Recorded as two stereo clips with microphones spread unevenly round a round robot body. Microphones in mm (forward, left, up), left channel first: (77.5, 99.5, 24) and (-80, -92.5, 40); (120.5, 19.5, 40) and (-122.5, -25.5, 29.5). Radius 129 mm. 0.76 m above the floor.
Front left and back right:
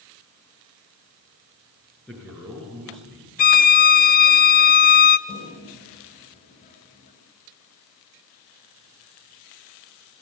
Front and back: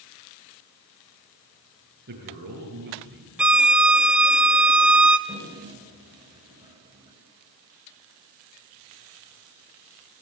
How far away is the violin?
About 0.8 m.